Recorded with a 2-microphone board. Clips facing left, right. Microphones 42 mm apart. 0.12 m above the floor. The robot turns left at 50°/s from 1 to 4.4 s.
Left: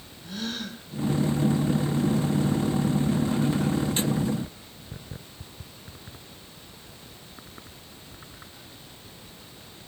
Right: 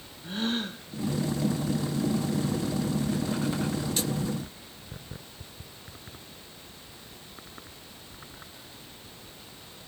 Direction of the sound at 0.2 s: 35° right (ahead or behind).